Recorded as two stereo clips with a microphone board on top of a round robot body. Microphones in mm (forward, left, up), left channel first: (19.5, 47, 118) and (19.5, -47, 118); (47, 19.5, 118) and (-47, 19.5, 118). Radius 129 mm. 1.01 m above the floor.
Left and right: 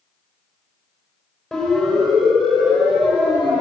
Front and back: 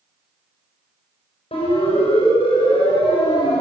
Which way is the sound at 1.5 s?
Straight ahead.